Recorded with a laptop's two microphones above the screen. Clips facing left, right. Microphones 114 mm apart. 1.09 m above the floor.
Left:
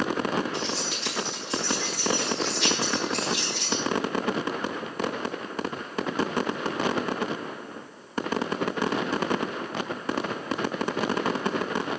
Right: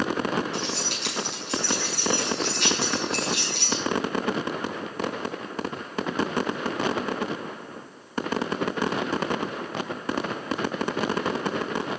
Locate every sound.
0.5 s keys jangling: 70° right (ahead or behind), 8.5 m